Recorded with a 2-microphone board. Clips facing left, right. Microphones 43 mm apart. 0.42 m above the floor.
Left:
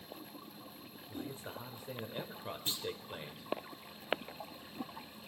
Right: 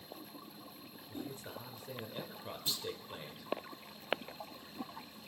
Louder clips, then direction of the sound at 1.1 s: Left 1 dB; 20° left (ahead or behind).